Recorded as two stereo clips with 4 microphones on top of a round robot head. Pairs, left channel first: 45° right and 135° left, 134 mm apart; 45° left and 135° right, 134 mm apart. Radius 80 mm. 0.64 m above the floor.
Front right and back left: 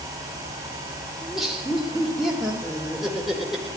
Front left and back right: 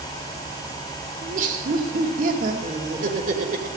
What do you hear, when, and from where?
1.2 s laughter: 140° right, 2.5 m